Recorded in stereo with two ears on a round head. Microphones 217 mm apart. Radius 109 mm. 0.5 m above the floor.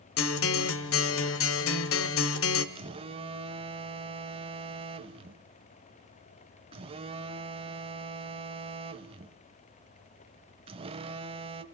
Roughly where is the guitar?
Left.